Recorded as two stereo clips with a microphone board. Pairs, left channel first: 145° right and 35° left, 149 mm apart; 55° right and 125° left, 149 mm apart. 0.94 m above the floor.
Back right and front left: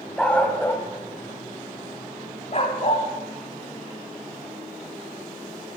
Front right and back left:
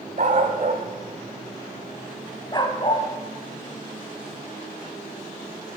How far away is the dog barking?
About 1.5 m.